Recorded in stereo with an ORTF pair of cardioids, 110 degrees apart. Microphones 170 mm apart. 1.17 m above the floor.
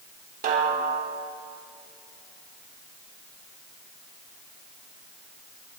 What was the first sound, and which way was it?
A snare drum, 55° right.